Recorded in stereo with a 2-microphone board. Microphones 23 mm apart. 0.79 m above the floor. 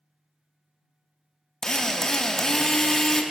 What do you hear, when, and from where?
1.6 s a drill: 20° left (ahead or behind), 0.6 m